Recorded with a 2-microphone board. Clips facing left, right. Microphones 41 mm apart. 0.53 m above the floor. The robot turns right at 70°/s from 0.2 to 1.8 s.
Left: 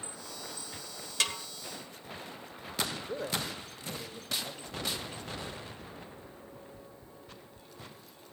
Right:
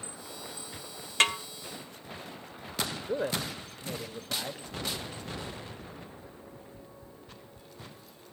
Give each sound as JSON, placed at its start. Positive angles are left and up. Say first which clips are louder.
{"t": 1.2, "sound": "a snare drum", "louder": "right 7 dB", "side_deg": -40, "distance_m": 2.0}
{"t": 3.1, "sound": "a man speaking", "louder": "right 4 dB", "side_deg": -25, "distance_m": 2.0}